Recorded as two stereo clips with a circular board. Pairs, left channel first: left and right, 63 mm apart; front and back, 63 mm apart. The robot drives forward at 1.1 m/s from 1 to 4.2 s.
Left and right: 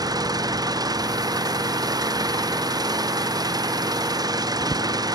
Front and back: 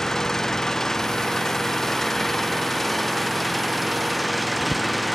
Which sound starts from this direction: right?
An engine running, at 0.0 s.